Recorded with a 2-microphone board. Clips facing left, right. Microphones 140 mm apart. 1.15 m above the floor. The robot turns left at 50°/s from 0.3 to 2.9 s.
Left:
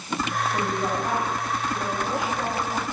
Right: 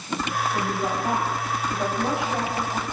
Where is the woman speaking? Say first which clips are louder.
Left 1 dB; 15° left, 7 m; by 2.8 s 100° right, 7 m.